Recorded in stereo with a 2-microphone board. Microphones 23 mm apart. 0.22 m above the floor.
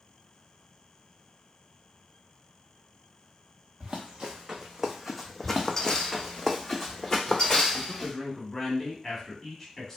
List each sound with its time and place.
3.8 s running footsteps: 50° right (ahead or behind), 1.0 m; by 6.4 s 55° left (ahead or behind), 0.7 m
5.4 s running footsteps: 40° right (ahead or behind), 0.9 m; by 8.1 s 40° left (ahead or behind), 1.2 m
7.7 s a man speaking: 15° left (ahead or behind), 1.2 m